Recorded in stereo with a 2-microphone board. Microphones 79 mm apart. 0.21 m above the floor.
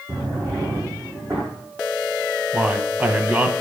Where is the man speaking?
15° right (ahead or behind), 1.0 m.